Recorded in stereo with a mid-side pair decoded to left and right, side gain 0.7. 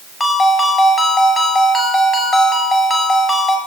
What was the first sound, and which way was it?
A ringtone, 15° left.